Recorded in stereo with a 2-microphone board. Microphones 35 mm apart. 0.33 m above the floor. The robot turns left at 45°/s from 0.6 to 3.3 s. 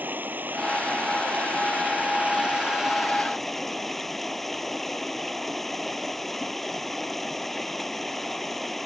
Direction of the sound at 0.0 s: 60° right.